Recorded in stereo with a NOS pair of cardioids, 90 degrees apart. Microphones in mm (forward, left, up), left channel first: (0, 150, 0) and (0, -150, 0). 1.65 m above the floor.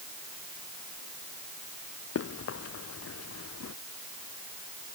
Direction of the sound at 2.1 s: 50° left.